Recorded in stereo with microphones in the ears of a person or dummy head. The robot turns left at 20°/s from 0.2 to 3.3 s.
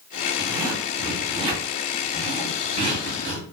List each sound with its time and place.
0.4 s a zipper: 15° right, 2 m; by 3.5 s 75° right, 2 m